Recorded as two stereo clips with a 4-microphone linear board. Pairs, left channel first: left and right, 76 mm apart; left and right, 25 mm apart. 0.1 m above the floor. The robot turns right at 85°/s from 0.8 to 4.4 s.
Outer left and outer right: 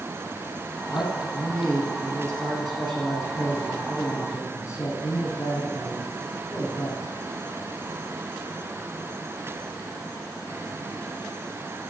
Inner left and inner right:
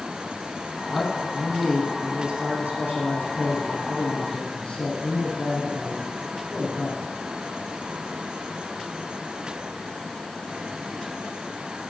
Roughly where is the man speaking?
Left.